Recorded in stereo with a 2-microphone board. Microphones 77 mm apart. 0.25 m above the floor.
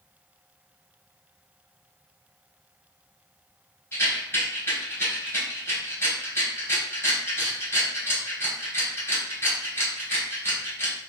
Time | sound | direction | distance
3.9 | a rattle | 25° left (ahead or behind) | 1.8 m